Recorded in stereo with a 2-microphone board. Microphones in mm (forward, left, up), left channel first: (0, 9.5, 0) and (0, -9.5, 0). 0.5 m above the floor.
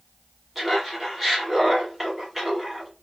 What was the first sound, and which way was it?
Laughter, 15° right (ahead or behind).